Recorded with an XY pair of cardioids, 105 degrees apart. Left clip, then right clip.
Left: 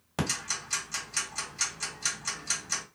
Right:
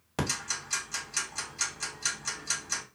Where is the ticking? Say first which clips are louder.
Even; straight ahead, 1.4 m.